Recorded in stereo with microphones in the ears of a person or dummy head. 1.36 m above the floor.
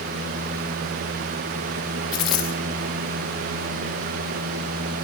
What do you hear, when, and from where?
2.1 s a dropped coin: 5° left (ahead or behind), 0.6 m